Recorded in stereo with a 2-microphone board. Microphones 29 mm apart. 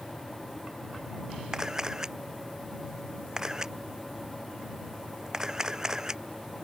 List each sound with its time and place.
1.5 s a camera shutter: 20° right (ahead or behind)